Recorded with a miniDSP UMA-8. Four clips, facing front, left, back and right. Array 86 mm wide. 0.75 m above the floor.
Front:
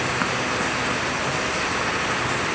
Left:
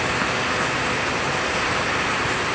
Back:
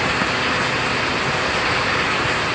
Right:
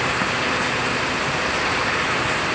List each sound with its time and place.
Only background noise.